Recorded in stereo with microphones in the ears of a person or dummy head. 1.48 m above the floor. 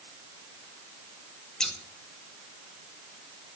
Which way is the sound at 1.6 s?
Centre (ahead or behind).